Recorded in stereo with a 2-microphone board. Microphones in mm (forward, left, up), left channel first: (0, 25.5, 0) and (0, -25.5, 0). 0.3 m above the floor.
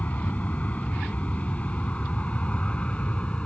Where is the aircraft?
35° left (ahead or behind); by 3.5 s 25° left (ahead or behind).